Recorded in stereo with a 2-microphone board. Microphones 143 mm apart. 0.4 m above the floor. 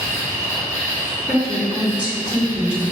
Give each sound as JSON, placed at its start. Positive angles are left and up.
{"t": 0.0, "sound": "an insect", "side_deg": -20, "distance_m": 1.7}
{"t": 1.3, "sound": "a woman speaking", "side_deg": -10, "distance_m": 1.3}